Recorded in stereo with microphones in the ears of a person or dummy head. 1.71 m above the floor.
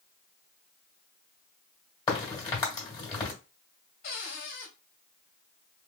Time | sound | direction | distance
2.1 | a crack | 15° left (ahead or behind) | 2 m
4.0 | a cupboard door | 50° left (ahead or behind) | 1.9 m